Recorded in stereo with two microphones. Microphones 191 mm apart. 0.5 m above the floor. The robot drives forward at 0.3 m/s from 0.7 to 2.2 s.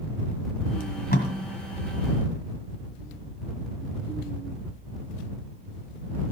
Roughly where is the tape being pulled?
Left.